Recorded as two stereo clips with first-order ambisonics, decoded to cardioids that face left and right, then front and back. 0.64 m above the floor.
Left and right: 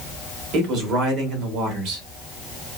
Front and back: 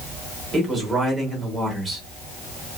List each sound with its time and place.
0.5 s a man speaking: 100° right, 1.5 m